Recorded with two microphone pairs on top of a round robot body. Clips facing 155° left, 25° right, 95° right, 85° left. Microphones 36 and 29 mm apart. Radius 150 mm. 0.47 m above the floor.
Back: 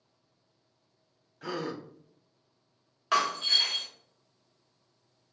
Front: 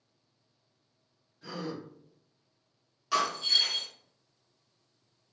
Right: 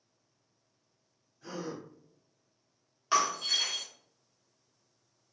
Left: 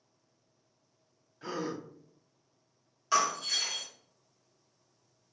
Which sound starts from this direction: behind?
Breaking glass, at 3.1 s.